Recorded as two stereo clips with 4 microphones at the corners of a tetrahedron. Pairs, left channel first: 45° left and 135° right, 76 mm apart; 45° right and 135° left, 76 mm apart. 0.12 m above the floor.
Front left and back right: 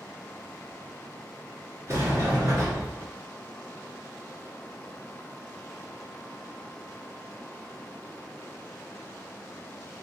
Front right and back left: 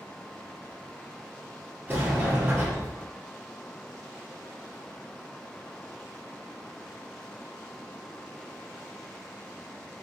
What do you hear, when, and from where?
1.9 s a sliding door: 175° right, 1.8 m